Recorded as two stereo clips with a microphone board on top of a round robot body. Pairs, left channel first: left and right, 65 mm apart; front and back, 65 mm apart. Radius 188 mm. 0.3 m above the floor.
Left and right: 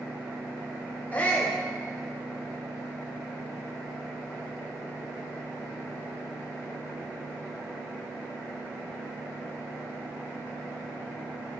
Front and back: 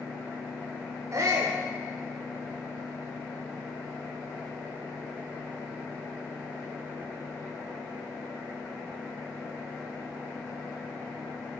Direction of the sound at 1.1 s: 155° left.